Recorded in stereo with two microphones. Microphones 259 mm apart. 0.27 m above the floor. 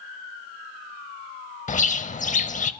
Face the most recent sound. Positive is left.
turn(degrees=30)  # may be behind; listen again after turning